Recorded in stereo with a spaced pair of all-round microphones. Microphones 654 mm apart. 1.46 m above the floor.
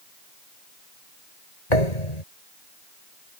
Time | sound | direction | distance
1.7 | a thud | 75° left (ahead or behind) | ?